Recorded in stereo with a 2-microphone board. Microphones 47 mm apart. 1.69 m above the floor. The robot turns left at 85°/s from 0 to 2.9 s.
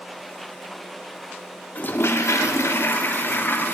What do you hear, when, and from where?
1.8 s a toilet flushing: 145° left, 1.3 m; by 3.8 s 50° left, 1.3 m